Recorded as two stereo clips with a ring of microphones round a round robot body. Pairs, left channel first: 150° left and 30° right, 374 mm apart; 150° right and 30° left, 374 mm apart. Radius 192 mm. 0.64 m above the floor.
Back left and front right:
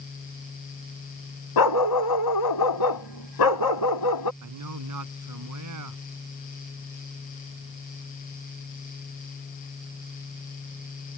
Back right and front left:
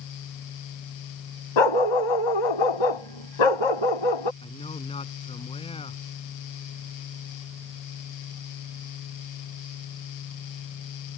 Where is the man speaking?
75° right.